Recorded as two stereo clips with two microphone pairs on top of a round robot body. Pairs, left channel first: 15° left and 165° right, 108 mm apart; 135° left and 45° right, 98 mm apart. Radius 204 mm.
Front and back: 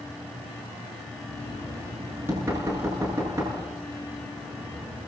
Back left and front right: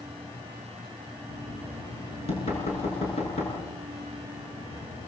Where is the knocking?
125° left, 8 m.